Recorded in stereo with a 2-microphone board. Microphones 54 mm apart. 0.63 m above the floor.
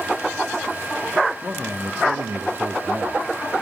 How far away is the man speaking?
About 0.9 m.